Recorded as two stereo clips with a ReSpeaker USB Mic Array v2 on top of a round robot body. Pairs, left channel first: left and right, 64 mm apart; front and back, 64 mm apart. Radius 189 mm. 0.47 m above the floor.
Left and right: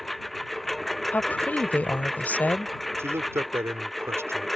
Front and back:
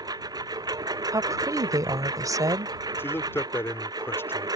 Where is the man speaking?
50° right.